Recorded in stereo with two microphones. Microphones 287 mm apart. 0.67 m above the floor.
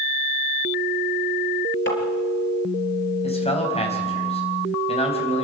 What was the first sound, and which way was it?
Tapping, 40° left (ahead or behind).